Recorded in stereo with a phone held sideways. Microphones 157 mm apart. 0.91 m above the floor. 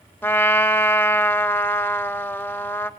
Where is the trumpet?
15° left (ahead or behind), 0.7 m.